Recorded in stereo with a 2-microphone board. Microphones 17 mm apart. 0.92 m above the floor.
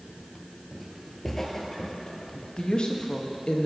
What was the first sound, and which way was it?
Footsteps, 15° right (ahead or behind).